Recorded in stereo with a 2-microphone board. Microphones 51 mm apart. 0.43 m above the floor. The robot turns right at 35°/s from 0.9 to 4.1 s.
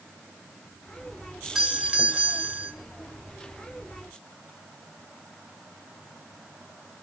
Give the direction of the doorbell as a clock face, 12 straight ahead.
6 o'clock.